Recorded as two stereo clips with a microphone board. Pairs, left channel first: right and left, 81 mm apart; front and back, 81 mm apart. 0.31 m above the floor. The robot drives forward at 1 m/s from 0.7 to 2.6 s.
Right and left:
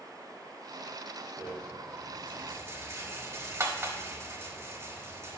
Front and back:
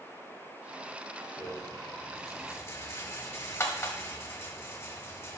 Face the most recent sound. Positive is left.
turn(degrees=50)